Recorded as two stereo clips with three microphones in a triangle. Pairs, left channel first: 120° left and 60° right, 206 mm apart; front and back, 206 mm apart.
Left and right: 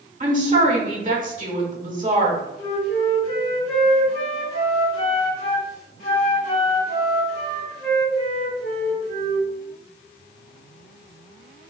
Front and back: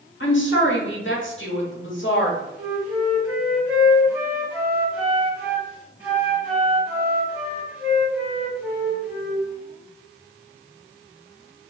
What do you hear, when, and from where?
0.2 s a woman speaking: 15° right, 1.0 m
2.6 s a flute: 95° left, 2.0 m